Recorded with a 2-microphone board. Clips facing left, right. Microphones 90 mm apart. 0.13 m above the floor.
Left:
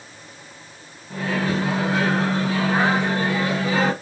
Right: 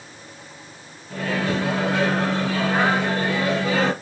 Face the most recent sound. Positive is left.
turn(degrees=15)  # may be behind; listen again after turning